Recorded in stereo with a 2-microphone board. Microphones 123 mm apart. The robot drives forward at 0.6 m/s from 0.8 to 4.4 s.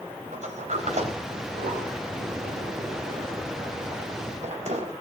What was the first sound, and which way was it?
A sliding door, 75° right (ahead or behind).